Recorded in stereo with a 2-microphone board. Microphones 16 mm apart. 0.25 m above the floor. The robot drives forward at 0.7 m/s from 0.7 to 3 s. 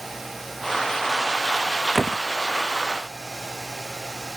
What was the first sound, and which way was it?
A door slam, 25° right (ahead or behind).